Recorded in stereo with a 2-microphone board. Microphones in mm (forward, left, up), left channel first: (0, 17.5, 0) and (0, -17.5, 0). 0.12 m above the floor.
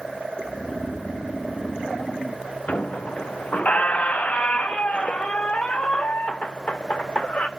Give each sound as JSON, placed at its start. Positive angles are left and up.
{"t": 0.4, "sound": "snoring", "side_deg": 25, "distance_m": 1.9}
{"t": 2.7, "sound": "a squeak", "side_deg": 40, "distance_m": 0.8}